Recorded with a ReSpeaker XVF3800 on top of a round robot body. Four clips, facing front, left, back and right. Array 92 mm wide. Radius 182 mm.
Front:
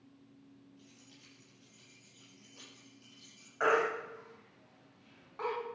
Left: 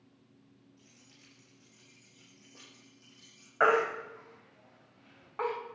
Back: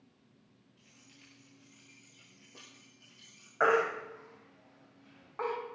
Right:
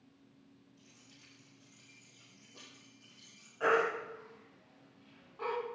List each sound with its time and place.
0.8 s keys jangling: 155° left, 10 m; by 3.5 s 165° left, 9 m
3.6 s a baby crying: 120° left, 3 m